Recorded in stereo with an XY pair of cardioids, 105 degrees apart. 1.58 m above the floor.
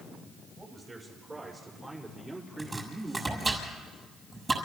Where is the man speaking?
20° right, 7 m; by 3.6 s 15° right, 5 m.